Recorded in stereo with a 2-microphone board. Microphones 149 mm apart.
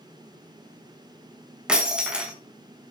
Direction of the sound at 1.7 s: 5° right (ahead or behind).